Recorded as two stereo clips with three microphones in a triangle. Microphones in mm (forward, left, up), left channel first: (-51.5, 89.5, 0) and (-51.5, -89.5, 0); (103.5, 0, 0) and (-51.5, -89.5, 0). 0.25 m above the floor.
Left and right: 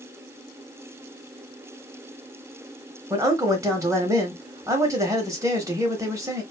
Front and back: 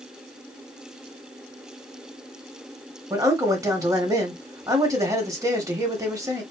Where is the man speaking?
120° right, 1.0 m.